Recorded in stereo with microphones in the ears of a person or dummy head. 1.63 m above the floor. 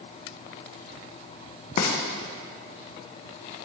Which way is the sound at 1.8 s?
35° left (ahead or behind).